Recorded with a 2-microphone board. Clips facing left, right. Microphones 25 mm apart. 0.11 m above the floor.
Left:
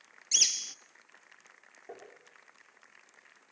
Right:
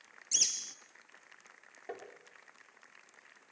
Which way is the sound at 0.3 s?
40° left (ahead or behind).